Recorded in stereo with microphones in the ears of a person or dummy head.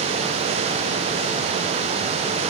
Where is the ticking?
No ticking in this recording.